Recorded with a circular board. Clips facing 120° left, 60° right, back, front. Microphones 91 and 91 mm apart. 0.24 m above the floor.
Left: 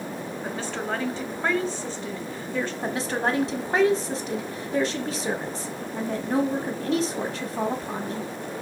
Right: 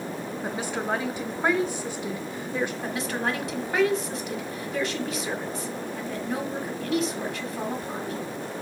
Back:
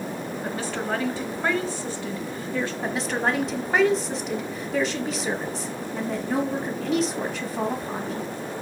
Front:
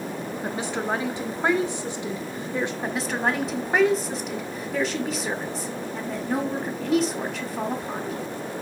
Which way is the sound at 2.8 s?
90° left.